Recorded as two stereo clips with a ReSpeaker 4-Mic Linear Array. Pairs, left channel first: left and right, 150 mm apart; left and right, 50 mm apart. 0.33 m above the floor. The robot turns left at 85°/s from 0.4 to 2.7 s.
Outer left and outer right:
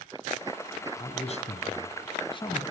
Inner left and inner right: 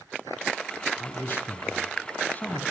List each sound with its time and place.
1.0 s a man speaking: 160° left, 2.5 m; by 2.6 s 20° left, 2.5 m